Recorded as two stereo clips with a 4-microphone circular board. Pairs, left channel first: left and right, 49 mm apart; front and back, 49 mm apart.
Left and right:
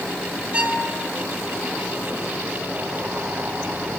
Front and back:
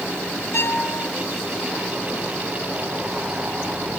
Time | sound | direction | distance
0.5 | a violin | 25° right | 2 m